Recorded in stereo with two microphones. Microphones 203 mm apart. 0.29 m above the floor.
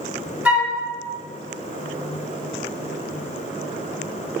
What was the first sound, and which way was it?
A flute, 5° right (ahead or behind).